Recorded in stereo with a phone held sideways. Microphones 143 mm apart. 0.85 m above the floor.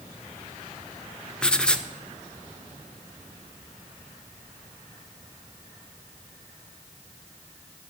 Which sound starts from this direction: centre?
Writing, at 1.4 s.